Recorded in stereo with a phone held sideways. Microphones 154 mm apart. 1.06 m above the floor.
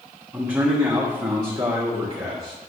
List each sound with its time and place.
0.3 s a man speaking: 10° right (ahead or behind), 1.2 m; by 2.5 s 40° right (ahead or behind), 2 m